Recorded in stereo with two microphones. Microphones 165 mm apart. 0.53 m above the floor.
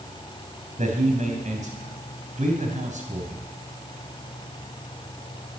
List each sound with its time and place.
0.8 s a man speaking: 50° right (ahead or behind), 3.5 m